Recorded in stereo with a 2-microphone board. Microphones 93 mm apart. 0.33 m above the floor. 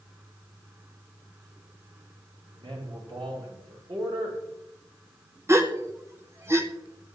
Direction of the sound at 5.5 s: 30° right (ahead or behind).